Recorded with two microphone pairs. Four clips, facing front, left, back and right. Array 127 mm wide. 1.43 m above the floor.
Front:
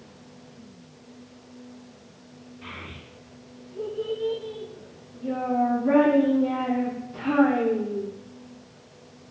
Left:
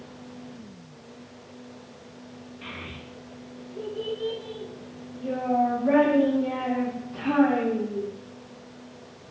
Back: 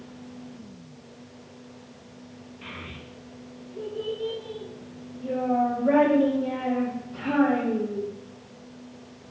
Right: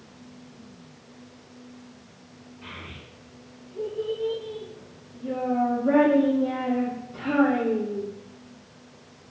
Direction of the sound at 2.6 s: 110° left.